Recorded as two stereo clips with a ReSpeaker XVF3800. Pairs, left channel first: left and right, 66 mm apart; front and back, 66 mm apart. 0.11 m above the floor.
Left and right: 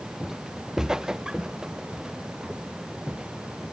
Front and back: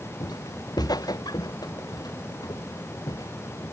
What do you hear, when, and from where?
0.2 s footsteps: 5° right; by 3.7 s 15° right